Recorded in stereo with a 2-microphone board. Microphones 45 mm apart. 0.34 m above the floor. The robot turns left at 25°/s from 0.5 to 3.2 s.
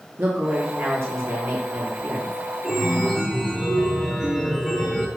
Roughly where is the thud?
I don't hear a thud.